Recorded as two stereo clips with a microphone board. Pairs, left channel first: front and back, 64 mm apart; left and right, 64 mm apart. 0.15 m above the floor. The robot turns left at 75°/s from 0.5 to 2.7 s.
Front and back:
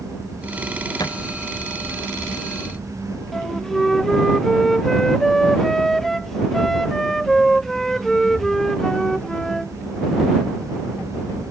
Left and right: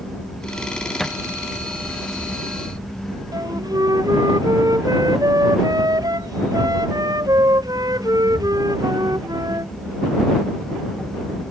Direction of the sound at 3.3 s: 85° right.